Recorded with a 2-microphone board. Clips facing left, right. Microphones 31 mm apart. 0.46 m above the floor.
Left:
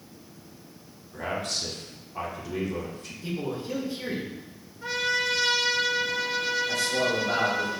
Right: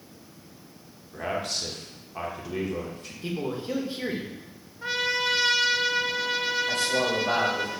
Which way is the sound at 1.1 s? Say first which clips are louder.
Right 1 dB; 10° right (ahead or behind).